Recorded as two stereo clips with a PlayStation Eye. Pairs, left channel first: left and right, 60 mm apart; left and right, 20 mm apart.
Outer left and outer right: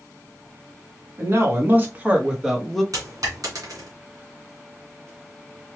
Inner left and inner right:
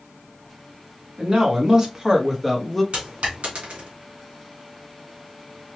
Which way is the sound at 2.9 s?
75° right (ahead or behind).